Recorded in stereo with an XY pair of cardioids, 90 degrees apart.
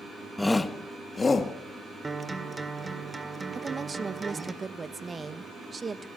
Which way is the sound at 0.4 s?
20° left.